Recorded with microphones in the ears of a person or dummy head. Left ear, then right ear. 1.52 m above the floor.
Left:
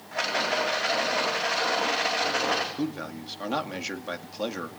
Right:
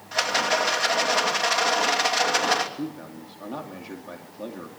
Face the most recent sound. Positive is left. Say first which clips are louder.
# left 3 dB
turn(degrees=60)  # may be behind; listen again after turning